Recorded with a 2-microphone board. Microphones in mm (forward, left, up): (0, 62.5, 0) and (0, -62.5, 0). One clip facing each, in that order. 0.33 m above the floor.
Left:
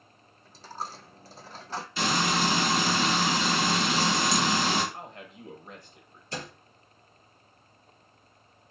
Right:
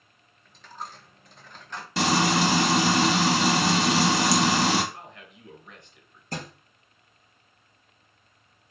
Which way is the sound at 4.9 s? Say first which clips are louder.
Left 3 dB; 40° left (ahead or behind).